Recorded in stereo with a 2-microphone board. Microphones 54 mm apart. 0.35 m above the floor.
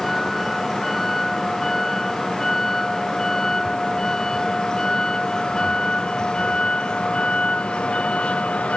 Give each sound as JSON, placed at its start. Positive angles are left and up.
{"t": 0.0, "sound": "a vehicle", "side_deg": 5}